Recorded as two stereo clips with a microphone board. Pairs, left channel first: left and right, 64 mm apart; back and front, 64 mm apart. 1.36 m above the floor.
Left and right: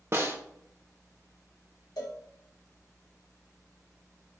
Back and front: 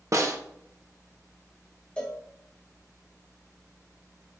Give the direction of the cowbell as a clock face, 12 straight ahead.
8 o'clock.